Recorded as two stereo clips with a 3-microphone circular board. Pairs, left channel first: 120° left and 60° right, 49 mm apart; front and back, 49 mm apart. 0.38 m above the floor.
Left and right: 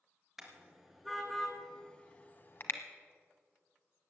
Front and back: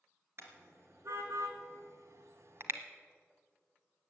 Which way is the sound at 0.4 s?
145° right.